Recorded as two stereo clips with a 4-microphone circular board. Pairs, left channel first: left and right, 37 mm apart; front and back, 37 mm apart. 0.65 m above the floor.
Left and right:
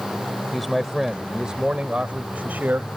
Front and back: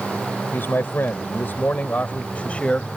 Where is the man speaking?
5° left; by 2.9 s 60° right.